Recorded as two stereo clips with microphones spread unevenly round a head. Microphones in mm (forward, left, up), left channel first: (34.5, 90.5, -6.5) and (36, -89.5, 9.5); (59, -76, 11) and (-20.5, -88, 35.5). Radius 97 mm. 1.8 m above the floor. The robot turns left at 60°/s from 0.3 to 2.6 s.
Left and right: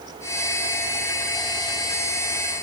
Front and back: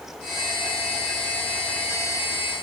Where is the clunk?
I don't hear a clunk.